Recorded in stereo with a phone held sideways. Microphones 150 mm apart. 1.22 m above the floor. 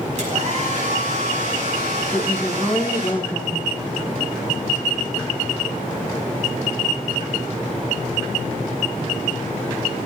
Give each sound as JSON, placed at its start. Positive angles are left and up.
{"t": 0.2, "sound": "a hair dryer", "side_deg": -55, "distance_m": 5.5}
{"t": 2.1, "sound": "a woman speaking", "side_deg": 10, "distance_m": 1.7}